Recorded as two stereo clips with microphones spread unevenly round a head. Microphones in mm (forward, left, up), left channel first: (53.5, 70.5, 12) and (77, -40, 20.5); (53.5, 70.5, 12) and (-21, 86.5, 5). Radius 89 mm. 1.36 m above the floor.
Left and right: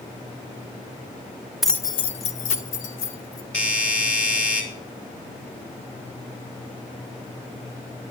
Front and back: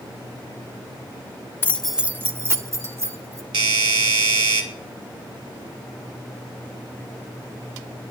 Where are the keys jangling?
Straight ahead, 0.5 m; by 3.4 s 120° left, 2 m.